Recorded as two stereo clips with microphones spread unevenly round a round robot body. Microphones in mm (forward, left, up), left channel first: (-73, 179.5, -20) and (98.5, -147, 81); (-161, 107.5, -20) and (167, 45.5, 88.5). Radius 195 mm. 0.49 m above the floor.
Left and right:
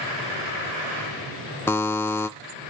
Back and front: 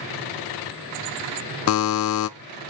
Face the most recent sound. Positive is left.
turn(degrees=-170)